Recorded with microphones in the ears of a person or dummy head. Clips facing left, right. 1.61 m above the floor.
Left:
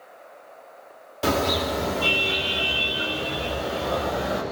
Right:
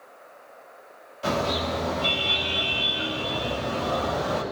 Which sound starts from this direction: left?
A car horn, at 1.2 s.